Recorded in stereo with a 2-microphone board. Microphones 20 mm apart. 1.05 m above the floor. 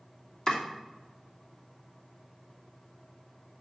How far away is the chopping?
About 2.5 m.